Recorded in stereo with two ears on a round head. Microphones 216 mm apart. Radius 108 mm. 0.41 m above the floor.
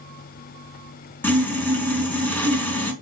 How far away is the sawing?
About 3.5 m.